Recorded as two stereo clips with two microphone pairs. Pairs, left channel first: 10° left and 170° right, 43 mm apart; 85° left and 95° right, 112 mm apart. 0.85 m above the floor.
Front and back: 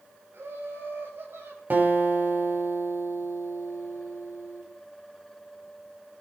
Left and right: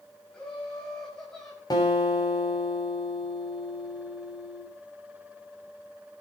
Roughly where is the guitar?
Behind left.